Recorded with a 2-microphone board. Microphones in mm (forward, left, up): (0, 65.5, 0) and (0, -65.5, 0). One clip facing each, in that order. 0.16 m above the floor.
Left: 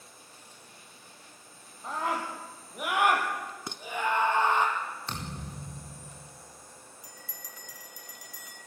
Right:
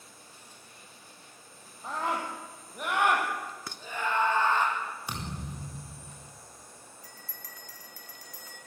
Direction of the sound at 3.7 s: 20° left (ahead or behind).